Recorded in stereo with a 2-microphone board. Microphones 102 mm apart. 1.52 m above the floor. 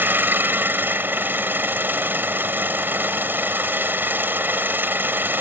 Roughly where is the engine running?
Right.